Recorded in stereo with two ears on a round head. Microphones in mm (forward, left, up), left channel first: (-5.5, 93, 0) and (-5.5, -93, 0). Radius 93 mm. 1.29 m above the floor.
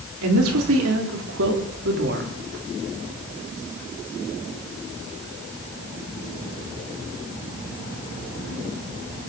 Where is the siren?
No siren in this recording.